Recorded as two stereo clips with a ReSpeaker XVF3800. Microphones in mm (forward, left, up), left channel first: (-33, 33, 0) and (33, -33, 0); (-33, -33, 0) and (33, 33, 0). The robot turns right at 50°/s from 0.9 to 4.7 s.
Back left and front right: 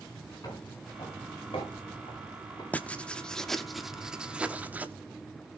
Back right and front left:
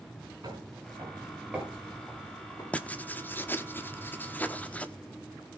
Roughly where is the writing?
Behind.